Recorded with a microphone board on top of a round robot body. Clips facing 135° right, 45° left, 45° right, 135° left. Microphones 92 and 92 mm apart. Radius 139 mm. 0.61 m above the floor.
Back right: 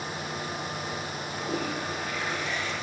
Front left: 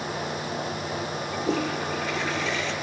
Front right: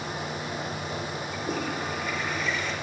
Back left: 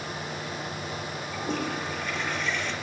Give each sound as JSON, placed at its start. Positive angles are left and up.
{"t": 1.3, "sound": "a toilet flushing", "azimuth_deg": 40, "distance_m": 6.0}